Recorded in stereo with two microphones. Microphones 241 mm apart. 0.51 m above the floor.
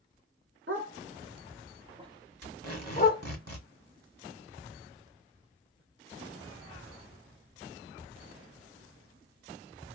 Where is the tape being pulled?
85° right, 1.7 m.